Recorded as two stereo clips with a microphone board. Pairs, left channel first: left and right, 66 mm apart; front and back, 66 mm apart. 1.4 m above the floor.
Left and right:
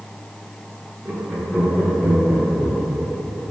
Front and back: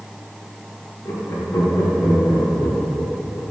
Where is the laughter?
30° right, 2.5 m; by 3.5 s 10° right, 5.5 m.